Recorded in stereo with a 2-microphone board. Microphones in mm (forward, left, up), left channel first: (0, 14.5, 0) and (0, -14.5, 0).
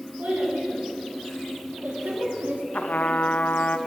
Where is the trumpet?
75° left (ahead or behind), 0.6 m.